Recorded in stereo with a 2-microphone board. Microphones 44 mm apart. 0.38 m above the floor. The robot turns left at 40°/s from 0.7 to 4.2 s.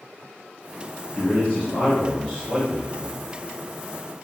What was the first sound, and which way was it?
A man speaking, 75° left.